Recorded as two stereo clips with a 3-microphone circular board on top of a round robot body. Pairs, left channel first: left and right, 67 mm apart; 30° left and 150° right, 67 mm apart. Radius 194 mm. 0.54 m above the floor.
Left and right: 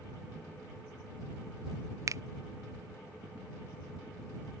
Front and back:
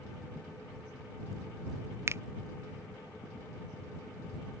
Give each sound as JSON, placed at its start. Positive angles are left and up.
{"t": 2.1, "sound": "a finger snap", "azimuth_deg": -110}